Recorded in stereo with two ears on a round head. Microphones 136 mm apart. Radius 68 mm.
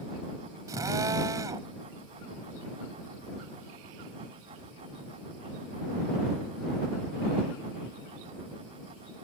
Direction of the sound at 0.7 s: 25° right (ahead or behind).